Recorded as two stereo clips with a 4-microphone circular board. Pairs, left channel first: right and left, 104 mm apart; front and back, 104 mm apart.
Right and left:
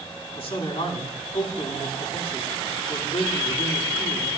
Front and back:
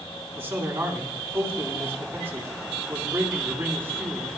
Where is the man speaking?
110° right, 3.5 m.